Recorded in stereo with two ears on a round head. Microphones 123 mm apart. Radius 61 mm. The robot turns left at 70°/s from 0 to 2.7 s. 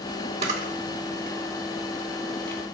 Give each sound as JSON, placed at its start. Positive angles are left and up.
{"t": 0.4, "sound": "a camera shutter", "side_deg": -45, "distance_m": 1.9}